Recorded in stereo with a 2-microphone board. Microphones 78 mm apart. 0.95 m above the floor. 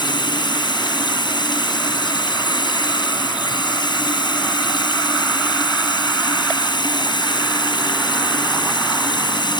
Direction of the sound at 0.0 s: 75° left (ahead or behind).